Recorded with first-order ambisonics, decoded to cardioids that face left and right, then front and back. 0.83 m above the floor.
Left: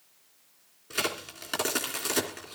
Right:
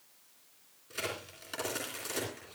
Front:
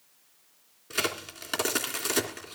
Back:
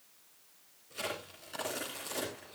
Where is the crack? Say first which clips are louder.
Left 7 dB, front 9 dB; 35° left, 2.5 m.